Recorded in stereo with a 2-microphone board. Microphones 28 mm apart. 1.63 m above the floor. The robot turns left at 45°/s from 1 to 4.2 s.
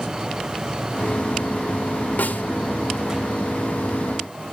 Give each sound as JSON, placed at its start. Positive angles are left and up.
{"t": 2.2, "sound": "a snare drum", "side_deg": 80, "distance_m": 1.3}